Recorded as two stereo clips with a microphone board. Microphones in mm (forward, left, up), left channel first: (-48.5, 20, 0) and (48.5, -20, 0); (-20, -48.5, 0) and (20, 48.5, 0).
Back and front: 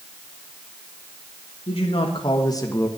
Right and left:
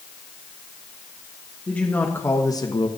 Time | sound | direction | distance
1.7 | a man speaking | 170° left | 1.9 m